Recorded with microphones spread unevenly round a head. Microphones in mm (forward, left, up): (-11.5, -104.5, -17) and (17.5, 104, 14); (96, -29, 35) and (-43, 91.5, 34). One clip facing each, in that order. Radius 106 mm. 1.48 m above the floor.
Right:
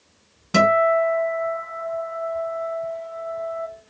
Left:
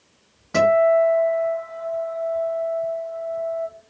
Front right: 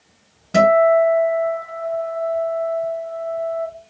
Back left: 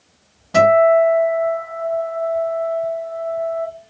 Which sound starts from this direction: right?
A guitar, at 0.5 s.